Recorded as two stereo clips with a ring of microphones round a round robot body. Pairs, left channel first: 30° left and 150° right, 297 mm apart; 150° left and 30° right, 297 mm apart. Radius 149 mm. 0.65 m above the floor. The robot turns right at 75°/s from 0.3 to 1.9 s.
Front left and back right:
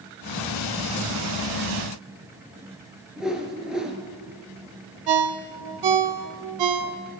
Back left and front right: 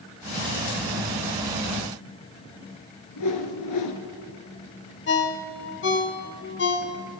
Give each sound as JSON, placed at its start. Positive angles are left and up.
{"t": 3.2, "sound": "a whoosh", "azimuth_deg": 120, "distance_m": 1.6}
{"t": 5.1, "sound": "a ringtone", "azimuth_deg": -155, "distance_m": 1.0}